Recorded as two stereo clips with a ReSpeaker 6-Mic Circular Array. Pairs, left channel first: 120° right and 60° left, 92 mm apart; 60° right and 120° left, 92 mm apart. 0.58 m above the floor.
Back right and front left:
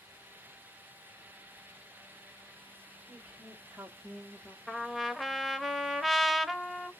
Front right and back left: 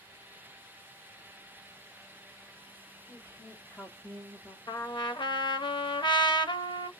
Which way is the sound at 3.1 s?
10° right.